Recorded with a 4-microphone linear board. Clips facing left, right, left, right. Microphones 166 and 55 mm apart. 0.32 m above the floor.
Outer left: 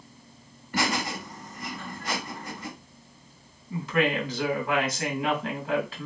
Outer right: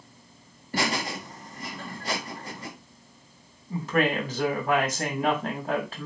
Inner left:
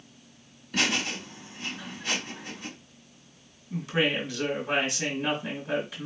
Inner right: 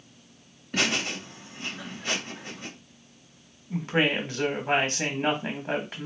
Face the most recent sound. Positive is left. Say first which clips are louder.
# outer right 1 dB, inner right 2 dB
turn(degrees=-50)  # may be behind; listen again after turning